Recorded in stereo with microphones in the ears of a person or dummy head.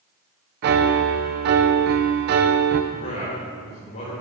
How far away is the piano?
About 0.7 m.